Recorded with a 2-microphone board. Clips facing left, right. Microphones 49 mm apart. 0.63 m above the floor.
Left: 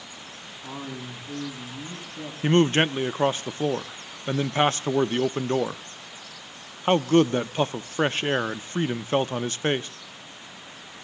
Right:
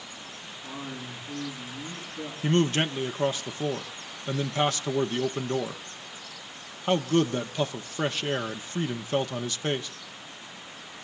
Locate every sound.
0.6 s a man speaking: 45° left (ahead or behind), 5 m
2.4 s a man speaking: 35° left (ahead or behind), 0.7 m